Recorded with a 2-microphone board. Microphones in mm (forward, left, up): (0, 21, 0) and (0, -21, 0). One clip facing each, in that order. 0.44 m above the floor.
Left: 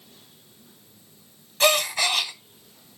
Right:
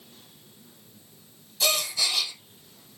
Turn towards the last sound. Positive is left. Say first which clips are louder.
# left 6 dB
turn(degrees=50)  # may be behind; listen again after turning